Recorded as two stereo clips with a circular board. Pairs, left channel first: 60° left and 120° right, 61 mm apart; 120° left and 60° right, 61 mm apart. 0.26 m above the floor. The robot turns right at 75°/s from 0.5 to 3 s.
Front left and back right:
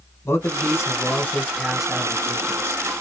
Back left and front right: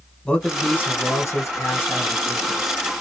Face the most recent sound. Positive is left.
turn(degrees=-120)